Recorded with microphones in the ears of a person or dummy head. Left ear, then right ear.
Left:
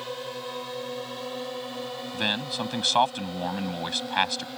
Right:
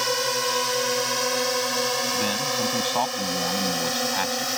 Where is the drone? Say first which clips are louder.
Right 11 dB; 65° right (ahead or behind); by 4.6 s 70° right (ahead or behind).